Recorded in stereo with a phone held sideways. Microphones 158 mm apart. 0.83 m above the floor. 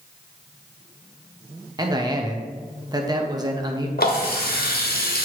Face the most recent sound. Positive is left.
turn(degrees=75)  # may be behind; listen again after turning